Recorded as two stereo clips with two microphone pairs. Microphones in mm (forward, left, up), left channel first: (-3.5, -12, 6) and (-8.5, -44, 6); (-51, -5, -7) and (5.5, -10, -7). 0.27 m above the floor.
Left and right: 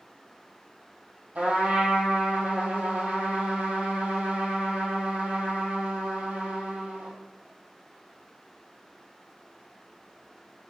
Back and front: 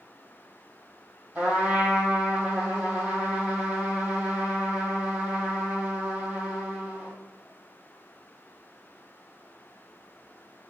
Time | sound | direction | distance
1.4 | a trumpet | 70° right | 1.2 m